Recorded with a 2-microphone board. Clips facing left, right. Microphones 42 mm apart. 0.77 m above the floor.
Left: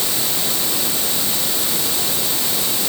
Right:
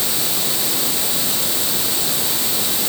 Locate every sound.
Only background noise.